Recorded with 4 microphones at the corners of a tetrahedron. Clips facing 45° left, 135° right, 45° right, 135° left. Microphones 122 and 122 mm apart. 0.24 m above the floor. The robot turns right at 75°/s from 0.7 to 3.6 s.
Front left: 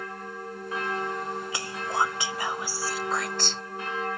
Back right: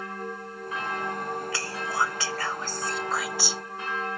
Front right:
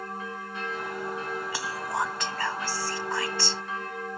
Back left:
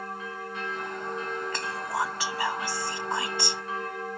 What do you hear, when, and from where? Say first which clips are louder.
1.5 s whispering: front left 3 dB, front right 1 dB; 15° left; by 3.6 s 170° left